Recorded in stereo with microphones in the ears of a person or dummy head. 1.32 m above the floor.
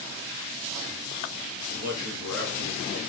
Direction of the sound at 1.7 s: 45° right (ahead or behind).